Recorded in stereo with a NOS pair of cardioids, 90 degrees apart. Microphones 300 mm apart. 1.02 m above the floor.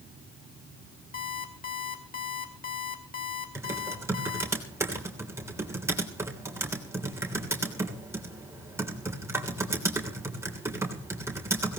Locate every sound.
1.1 s an alarm clock: 30° left, 2.5 m
3.5 s typing on a keyboard: 10° right, 3 m